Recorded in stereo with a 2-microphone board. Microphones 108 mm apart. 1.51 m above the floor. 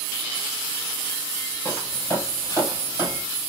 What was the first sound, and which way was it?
Footsteps, 25° left (ahead or behind).